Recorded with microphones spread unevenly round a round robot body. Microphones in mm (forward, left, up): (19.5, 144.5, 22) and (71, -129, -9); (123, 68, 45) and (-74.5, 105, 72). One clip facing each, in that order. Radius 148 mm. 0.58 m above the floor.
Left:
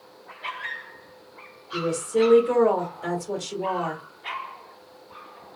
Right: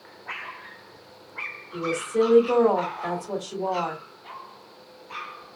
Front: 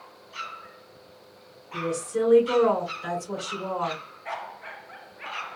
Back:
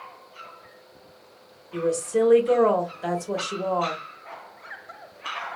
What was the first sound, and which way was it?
A woman speaking, 150° left.